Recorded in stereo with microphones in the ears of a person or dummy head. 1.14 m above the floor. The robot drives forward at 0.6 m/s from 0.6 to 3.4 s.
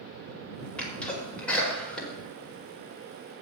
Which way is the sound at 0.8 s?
5° left (ahead or behind).